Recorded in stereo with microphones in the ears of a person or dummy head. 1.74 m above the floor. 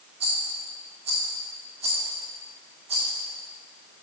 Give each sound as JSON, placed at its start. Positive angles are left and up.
{"t": 0.2, "sound": "a rattle", "side_deg": -35, "distance_m": 1.0}